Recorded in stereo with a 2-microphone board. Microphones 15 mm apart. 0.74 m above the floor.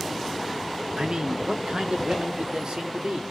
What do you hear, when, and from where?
1.0 s a man speaking: 50° right (ahead or behind), 1.9 m; by 3.2 s 55° right (ahead or behind), 3 m